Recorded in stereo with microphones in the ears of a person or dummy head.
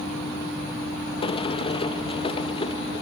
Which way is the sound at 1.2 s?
30° left (ahead or behind).